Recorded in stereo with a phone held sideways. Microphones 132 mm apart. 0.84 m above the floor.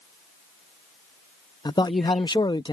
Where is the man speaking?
35° left (ahead or behind).